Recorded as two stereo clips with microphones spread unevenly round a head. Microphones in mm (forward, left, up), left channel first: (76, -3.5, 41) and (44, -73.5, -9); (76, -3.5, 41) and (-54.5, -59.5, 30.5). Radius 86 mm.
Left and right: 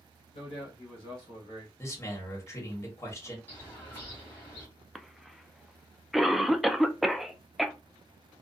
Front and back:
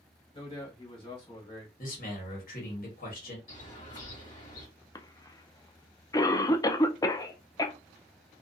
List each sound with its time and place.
0.3 s a man speaking: 85° left, 1.1 m
1.8 s a man speaking: straight ahead, 1.5 m
3.5 s a bird: 55° left, 1.3 m
5.0 s a cough: 45° right, 0.5 m